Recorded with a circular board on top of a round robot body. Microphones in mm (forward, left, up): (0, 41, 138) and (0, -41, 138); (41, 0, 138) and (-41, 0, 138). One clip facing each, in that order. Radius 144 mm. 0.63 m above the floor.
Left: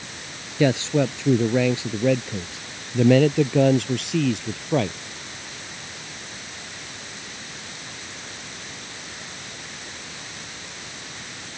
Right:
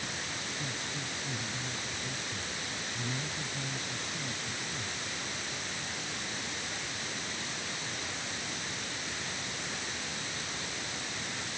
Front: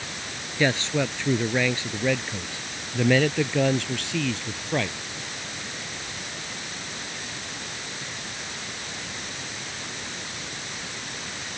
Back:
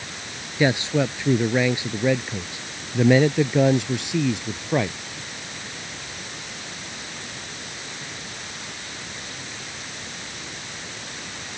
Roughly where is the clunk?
No clunk in this recording.